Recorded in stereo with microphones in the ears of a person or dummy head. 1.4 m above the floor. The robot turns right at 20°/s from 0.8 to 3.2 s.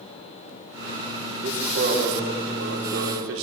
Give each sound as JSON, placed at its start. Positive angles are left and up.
{"t": 1.4, "sound": "a man speaking", "azimuth_deg": -140, "distance_m": 4.0}